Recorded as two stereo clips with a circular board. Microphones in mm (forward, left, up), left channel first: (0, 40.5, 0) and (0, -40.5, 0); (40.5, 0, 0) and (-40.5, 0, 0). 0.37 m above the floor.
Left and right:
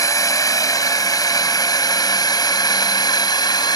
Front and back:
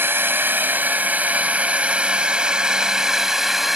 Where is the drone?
125° left; by 3.8 s 90° left.